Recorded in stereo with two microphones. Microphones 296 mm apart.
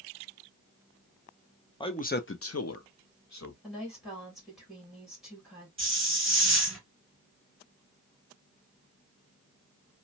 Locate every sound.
1.8 s a man speaking: 15° left (ahead or behind), 0.5 m; by 3.5 s 65° left (ahead or behind), 1.0 m
3.6 s a woman speaking: centre (ahead or behind), 2.0 m
5.8 s a hiss: 45° right (ahead or behind), 1.6 m